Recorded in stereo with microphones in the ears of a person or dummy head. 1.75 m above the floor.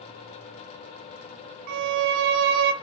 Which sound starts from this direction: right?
A violin, at 1.7 s.